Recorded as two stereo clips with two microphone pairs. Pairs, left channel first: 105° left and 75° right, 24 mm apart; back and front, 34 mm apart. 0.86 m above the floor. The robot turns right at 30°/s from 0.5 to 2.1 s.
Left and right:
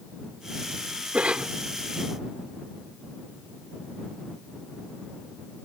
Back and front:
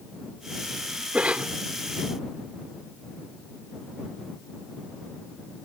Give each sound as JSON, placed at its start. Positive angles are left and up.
{"t": 1.1, "sound": "a cough", "azimuth_deg": -50}